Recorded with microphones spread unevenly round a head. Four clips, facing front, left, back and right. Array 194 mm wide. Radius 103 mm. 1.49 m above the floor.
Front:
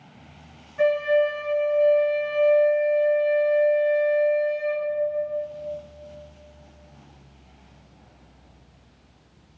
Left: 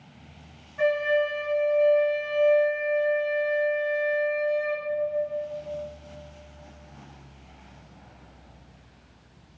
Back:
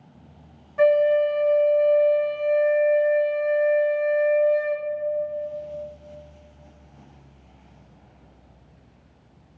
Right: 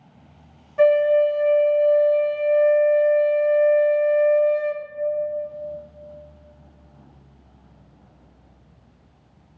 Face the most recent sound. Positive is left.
turn(degrees=-105)